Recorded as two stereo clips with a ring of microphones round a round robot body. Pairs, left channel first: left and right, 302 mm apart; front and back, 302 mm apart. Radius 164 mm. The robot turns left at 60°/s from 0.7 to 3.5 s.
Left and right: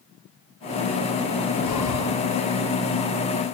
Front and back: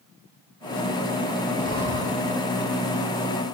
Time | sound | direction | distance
1.6 | breathing | 70° left | 10 m